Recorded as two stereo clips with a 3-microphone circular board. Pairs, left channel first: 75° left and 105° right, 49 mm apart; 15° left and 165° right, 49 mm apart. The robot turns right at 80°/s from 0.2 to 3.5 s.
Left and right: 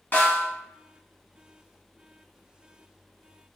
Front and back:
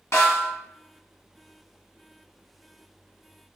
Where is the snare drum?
25° left, 1.2 m; by 0.5 s 55° left, 1.2 m.